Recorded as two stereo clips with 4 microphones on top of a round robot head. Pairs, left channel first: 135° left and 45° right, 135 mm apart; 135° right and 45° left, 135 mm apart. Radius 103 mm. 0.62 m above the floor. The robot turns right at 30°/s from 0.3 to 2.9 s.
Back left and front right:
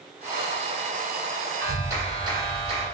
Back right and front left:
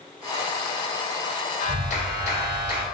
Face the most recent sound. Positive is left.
turn(degrees=-80)